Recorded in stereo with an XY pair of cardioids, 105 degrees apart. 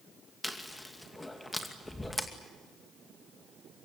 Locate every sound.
0.4 s chewing: 10° left, 2.5 m